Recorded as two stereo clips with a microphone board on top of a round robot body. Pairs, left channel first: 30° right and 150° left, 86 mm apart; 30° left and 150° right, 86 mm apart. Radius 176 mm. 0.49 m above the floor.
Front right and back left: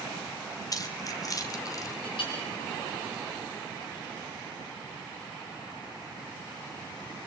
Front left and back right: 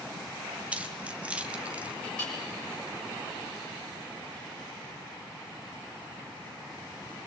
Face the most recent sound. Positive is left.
turn(degrees=-45)